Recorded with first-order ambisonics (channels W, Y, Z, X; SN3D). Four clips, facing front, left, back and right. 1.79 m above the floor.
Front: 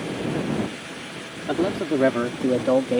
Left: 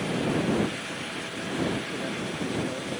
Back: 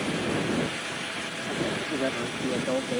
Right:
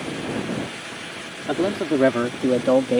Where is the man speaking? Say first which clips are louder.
Right 9 dB, front 8 dB; 55° right; by 3.0 s 60° right.